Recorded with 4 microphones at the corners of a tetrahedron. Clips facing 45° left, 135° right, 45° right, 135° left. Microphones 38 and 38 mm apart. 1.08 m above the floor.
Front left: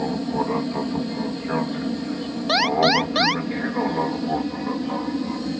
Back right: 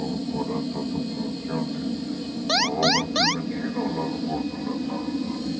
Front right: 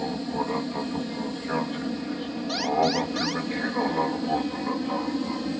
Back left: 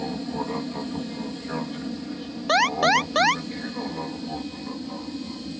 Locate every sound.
0.0 s an aircraft: 35° left; by 5.6 s 5° right
2.5 s an alarm: 110° left